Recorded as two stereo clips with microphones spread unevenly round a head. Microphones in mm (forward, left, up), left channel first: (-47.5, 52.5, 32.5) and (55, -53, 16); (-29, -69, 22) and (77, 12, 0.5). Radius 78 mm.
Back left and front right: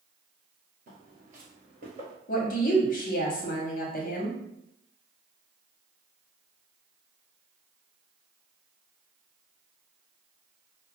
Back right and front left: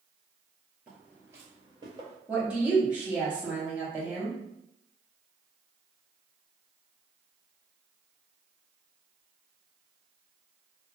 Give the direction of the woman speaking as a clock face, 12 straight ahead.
8 o'clock.